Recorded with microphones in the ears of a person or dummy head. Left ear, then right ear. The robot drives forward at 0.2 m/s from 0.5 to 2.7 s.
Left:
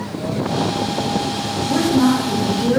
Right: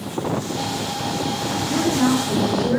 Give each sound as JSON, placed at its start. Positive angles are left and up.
{"t": 1.6, "sound": "a woman speaking", "side_deg": 55, "distance_m": 0.8}